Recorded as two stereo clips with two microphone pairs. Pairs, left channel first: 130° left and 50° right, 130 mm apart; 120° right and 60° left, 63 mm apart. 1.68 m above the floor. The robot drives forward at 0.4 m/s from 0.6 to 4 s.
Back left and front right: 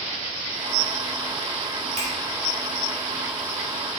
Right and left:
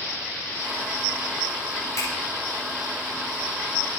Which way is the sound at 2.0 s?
80° right.